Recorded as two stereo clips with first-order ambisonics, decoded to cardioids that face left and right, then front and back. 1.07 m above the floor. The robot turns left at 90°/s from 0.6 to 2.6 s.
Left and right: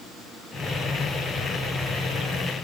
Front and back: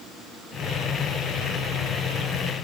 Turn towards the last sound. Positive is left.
No sound to turn to.